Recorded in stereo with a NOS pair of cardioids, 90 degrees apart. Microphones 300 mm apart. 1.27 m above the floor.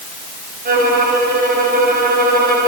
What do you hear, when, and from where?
0.7 s a violin: 30° right, 3 m